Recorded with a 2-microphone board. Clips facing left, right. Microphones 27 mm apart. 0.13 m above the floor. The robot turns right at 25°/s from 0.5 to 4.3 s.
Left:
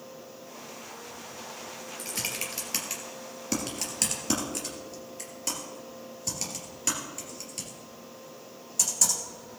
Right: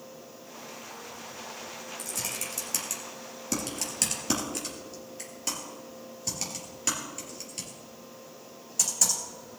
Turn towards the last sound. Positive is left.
turn(degrees=-5)  # may be behind; listen again after turning